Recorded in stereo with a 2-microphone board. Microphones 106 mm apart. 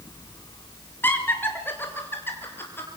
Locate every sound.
1.0 s laughter: 20° left (ahead or behind), 2.5 m